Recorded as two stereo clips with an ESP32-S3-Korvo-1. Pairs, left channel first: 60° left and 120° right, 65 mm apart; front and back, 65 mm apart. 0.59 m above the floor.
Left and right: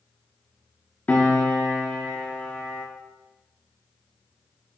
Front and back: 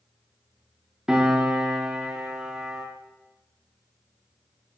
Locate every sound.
1.1 s a piano: 105° left, 1.4 m